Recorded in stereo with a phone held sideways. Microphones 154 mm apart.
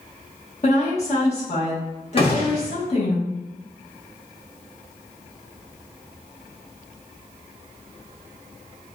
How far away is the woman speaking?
About 1.4 m.